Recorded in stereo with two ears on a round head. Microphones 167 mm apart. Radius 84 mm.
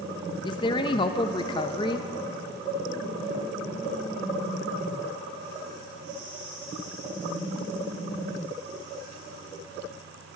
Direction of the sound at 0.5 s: 25° left (ahead or behind).